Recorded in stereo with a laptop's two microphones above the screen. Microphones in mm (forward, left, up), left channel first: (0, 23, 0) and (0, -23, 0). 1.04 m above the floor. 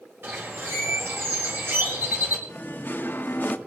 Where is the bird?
55° right (ahead or behind), 4.5 m.